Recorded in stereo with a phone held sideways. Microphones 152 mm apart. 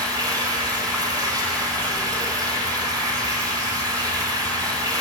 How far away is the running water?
About 2.5 m.